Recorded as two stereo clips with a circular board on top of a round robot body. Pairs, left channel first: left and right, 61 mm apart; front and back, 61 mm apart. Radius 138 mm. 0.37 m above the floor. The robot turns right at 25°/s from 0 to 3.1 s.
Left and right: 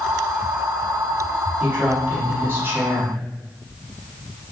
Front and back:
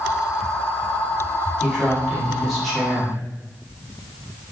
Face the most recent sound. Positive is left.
turn(degrees=-80)